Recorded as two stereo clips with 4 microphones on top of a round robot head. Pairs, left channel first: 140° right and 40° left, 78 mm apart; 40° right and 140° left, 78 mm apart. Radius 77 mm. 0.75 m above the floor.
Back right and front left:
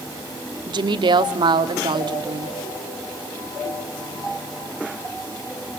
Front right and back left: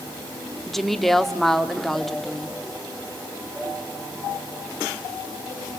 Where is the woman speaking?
50° left, 1.4 m.